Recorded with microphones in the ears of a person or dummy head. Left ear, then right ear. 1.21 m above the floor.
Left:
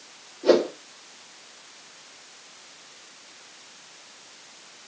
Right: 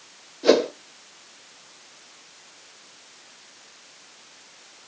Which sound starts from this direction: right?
A whoosh, at 0.4 s.